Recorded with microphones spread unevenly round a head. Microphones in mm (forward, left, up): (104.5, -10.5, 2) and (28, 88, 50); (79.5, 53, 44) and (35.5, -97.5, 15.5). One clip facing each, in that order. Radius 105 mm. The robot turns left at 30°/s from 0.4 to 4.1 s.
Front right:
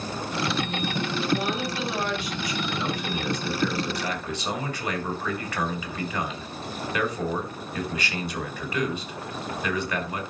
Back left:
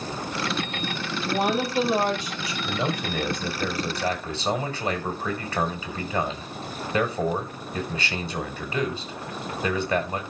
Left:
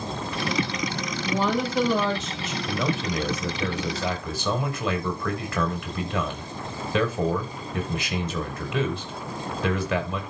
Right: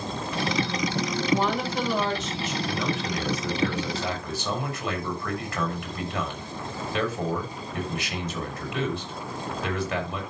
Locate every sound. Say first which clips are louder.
1.2 s a woman speaking: back left 6 dB, left 2 dB; 105° left, 5.5 m; by 2.5 s 65° left, 5.5 m
2.6 s a man speaking: back left 2 dB, left 4 dB; 110° left, 5.5 m; by 10.2 s 65° left, 5.5 m